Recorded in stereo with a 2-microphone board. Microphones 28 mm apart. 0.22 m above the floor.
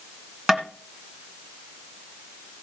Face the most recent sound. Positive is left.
turn(degrees=-15)  # may be behind; listen again after turning